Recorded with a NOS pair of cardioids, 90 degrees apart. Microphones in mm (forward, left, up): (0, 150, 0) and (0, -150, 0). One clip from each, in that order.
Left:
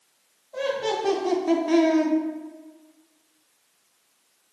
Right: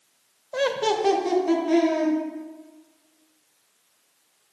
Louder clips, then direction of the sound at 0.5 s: Right 3 dB; 50° right.